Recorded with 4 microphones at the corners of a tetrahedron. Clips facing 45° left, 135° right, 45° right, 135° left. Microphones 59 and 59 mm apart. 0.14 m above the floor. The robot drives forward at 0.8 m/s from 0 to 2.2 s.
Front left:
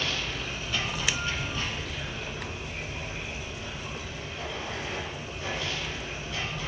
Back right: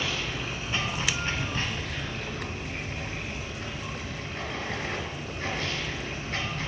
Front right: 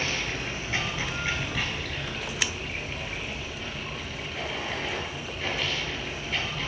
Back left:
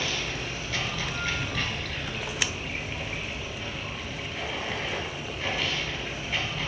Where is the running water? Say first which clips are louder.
Back right 1 dB, front right 1 dB; 60° right, 1.6 m; by 6.7 s 140° right, 1.9 m.